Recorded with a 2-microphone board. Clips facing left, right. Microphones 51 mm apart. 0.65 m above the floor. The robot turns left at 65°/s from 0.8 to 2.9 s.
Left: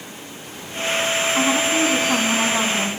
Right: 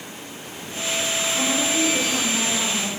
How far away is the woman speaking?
About 6 m.